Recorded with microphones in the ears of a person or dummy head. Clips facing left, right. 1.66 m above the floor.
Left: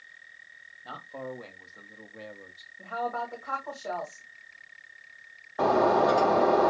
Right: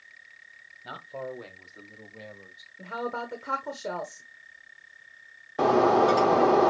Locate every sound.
0.8 s a man speaking: 25° right (ahead or behind), 1.7 m; by 2.7 s 25° left (ahead or behind), 0.8 m
2.8 s a woman speaking: 35° right (ahead or behind), 1.1 m
5.6 s breaking glass: 30° right (ahead or behind), 1.0 m